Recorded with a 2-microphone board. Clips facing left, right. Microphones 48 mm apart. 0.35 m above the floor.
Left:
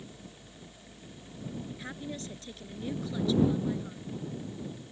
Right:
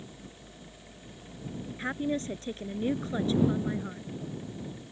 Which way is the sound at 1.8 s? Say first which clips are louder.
Right 9 dB; 35° right (ahead or behind).